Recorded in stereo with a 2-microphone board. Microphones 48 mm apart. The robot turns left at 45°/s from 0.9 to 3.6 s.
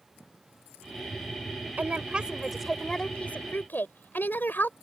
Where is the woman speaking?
140° right; by 4.7 s 135° left.